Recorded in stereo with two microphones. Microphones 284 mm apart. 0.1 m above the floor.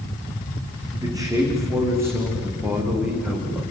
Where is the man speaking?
15° right (ahead or behind), 7.5 m; by 3.6 s 5° right (ahead or behind), 9 m.